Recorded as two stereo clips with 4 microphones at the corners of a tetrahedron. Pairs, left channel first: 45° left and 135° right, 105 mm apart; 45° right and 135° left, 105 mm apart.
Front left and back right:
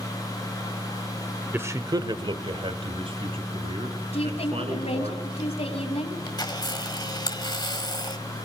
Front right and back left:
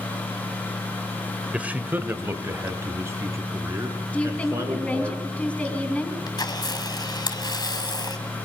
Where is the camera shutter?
Straight ahead, 1.7 m.